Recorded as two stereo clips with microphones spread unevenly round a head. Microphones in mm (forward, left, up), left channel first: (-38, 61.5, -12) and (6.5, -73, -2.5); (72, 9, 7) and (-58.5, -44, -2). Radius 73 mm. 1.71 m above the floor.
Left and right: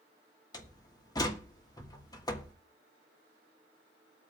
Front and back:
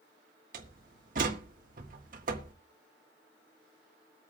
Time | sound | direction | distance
0.5 | a door slam | 170° left | 1.7 m